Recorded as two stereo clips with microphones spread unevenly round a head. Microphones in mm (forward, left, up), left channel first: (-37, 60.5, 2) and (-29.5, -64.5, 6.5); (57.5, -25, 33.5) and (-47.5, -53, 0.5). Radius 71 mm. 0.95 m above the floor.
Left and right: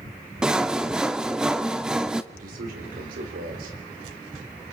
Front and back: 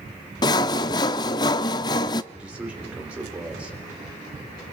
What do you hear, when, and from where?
0.4 s sawing: 5° right, 0.6 m
2.3 s a man speaking: 90° right, 4 m